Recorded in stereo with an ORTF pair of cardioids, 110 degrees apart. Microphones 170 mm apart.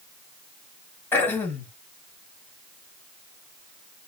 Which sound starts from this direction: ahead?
Throat clearing, at 1.1 s.